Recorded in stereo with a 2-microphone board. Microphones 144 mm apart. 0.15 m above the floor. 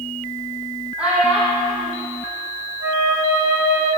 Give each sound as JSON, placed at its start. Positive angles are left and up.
{"t": 1.0, "sound": "a child speaking", "side_deg": -5, "distance_m": 4.0}
{"t": 2.8, "sound": "a flute", "side_deg": -20, "distance_m": 1.9}